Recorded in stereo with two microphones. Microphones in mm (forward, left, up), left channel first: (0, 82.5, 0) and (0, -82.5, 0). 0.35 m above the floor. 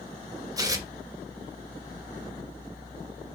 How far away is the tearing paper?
About 0.6 m.